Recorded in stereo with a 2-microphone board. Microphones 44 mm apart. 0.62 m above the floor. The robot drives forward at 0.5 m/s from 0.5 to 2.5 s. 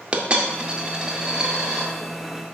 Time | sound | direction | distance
0.1 | a dropped coin | 25° right (ahead or behind) | 0.7 m